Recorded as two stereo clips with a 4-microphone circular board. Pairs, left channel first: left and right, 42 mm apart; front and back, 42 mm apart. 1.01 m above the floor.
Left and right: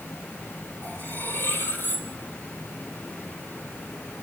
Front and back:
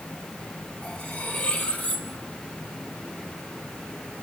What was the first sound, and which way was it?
Cutlery clinking, 50° left.